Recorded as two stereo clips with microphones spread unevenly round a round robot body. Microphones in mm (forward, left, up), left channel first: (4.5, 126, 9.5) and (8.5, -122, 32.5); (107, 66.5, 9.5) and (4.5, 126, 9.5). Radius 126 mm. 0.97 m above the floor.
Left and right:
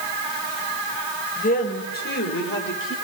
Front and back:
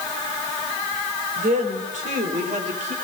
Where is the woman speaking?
150° left, 5 m; by 3.0 s 135° left, 4.5 m.